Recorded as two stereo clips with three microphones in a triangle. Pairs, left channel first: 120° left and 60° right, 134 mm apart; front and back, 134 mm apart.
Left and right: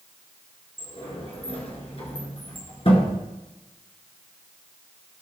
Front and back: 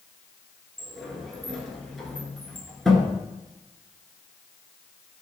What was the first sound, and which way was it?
A sliding door, 85° left.